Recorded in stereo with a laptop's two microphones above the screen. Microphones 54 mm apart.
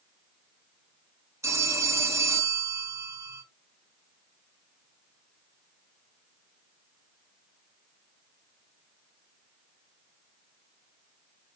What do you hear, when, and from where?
1.4 s a phone ringing: 60° right (ahead or behind), 0.7 m